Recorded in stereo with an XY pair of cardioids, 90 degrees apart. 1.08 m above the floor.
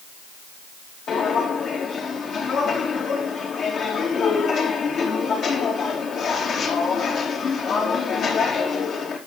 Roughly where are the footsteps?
Left.